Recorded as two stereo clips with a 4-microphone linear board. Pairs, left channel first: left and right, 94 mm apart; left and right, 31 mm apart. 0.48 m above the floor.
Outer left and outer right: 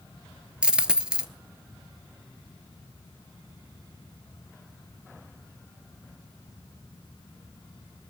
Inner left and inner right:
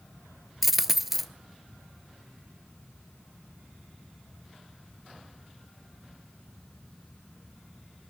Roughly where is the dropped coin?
Centre.